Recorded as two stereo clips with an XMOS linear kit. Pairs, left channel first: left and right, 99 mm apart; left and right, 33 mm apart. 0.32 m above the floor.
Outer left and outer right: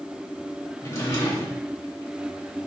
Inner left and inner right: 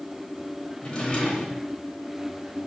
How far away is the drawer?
About 0.9 m.